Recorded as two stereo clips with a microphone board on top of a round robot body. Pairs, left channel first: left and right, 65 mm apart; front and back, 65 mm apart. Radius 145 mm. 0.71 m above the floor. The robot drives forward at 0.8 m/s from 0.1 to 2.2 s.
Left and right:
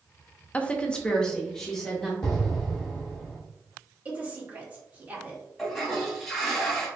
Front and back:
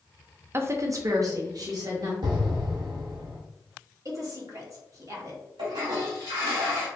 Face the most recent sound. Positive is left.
turn(degrees=180)